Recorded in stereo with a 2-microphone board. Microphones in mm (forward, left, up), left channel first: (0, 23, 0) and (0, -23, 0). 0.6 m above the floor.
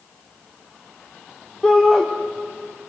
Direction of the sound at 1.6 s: 10° left (ahead or behind).